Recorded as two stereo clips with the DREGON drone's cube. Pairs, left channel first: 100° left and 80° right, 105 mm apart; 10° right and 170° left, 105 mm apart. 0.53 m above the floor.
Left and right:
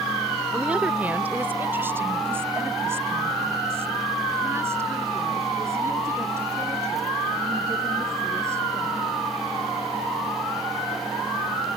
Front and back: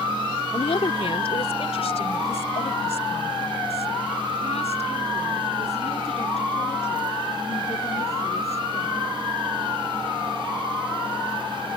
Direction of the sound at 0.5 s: Straight ahead.